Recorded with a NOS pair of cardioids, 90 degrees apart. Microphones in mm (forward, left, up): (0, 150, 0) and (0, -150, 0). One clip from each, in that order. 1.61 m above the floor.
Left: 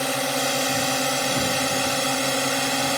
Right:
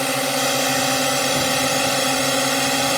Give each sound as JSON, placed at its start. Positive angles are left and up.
{"t": 0.0, "sound": "a drone", "azimuth_deg": -30}